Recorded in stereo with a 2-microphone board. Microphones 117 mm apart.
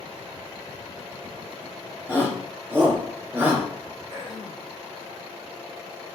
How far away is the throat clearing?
About 5 m.